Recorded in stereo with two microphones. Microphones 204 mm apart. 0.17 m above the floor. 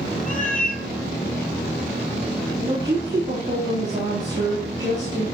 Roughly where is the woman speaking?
Right.